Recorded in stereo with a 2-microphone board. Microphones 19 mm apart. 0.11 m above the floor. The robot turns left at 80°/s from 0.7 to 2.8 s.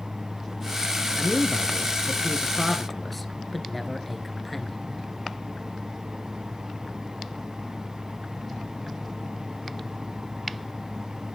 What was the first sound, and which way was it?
A man speaking, 55° right.